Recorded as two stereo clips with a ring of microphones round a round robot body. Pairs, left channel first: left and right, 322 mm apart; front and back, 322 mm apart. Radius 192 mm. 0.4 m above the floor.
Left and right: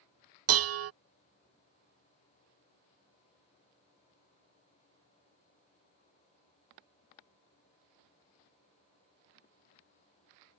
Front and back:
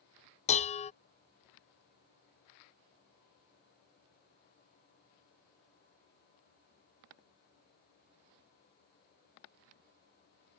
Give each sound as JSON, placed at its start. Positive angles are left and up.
{"t": 0.5, "sound": "dishes clattering", "azimuth_deg": -65}